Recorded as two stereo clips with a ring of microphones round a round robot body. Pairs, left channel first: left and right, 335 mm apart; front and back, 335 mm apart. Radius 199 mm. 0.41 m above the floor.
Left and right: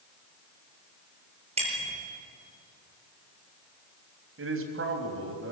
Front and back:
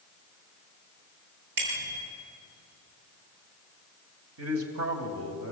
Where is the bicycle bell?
160° right, 7 m.